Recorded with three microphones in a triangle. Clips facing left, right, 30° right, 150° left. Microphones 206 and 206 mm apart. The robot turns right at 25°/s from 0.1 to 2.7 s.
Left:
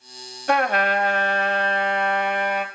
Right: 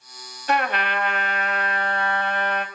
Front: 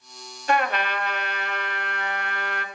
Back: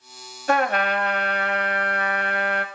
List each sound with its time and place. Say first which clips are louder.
0.5 s a trumpet: left 4 dB, back 3 dB; 115° left, 0.8 m; by 2.6 s 170° left, 0.8 m